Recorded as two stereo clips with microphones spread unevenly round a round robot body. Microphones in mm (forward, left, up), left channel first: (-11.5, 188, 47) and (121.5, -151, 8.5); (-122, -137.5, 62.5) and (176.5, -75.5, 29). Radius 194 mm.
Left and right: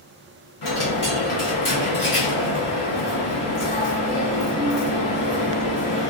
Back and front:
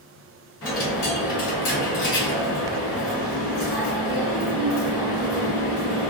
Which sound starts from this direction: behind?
A dropped coin, at 0.6 s.